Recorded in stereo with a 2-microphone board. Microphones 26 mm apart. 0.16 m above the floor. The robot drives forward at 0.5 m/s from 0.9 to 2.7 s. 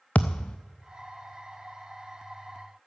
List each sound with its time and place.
0.1 s a thud: 70° left (ahead or behind), 0.8 m